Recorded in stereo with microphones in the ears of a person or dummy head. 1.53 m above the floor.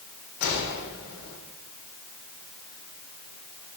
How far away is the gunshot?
About 4 m.